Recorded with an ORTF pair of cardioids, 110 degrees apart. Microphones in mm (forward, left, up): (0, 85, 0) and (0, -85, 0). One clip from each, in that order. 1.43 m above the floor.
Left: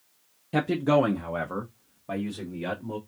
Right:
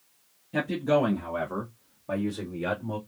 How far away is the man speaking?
About 0.8 m.